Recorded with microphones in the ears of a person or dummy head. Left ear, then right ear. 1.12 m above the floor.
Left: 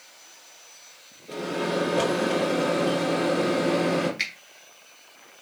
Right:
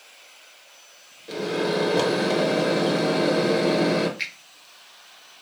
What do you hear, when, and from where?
1.3 s a microwave: 40° right (ahead or behind), 0.9 m
4.2 s a finger snap: 15° left (ahead or behind), 0.8 m